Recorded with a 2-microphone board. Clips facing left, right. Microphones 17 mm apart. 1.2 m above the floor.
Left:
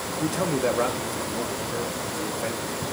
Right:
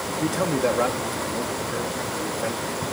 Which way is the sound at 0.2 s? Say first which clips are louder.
Right 1 dB; centre (ahead or behind).